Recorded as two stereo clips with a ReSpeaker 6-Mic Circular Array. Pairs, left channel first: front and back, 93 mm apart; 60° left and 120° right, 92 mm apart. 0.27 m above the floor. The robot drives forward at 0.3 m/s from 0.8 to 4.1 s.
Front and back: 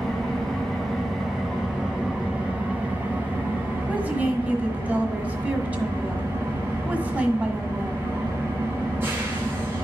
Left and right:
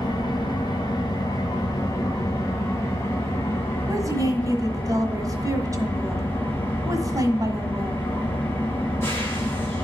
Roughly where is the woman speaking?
Right.